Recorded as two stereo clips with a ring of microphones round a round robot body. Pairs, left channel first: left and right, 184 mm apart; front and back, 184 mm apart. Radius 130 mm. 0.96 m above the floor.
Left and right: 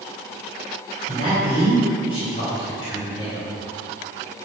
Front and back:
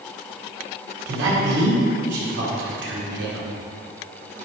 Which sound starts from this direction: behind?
A man speaking, at 1.1 s.